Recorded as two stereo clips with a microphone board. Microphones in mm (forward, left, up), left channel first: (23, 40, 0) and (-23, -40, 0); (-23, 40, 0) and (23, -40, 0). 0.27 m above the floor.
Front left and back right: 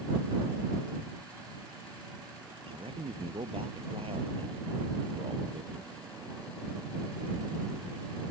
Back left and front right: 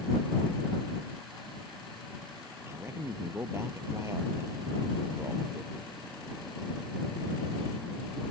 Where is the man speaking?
120° right.